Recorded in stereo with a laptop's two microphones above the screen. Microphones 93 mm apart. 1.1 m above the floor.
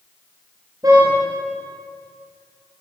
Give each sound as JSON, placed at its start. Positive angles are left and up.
{"t": 0.8, "sound": "a car horn", "side_deg": -45, "distance_m": 10.0}